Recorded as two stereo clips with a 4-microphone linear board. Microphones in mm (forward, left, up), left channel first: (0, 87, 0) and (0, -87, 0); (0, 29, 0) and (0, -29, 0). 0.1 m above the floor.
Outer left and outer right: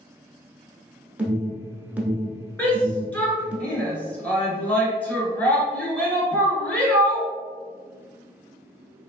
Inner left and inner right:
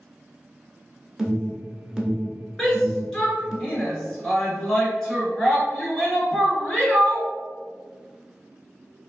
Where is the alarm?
10° right (ahead or behind), 0.8 m.